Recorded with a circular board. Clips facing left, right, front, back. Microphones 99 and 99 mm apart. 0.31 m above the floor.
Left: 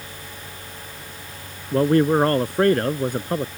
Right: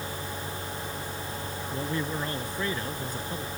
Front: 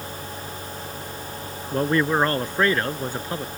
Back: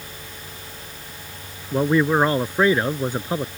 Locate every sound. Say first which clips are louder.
1.7 s a man speaking: left 16 dB, back 3 dB; 95° left; by 3.5 s 110° left